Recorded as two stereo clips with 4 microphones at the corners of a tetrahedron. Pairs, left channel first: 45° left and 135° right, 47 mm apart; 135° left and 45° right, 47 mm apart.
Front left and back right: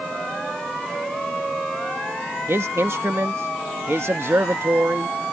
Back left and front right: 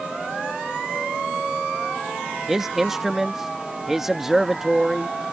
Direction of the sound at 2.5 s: 125° right.